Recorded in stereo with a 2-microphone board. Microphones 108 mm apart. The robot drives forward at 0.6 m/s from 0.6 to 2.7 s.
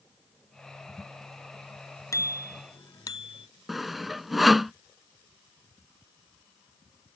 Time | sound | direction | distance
2.1 | a bicycle bell | 30° left (ahead or behind) | ?
3.7 | sawing | centre (ahead or behind) | ?